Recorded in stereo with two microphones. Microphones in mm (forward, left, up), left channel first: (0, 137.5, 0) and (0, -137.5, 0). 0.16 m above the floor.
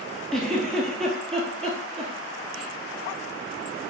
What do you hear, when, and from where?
0.3 s a giggle: centre (ahead or behind), 1.0 m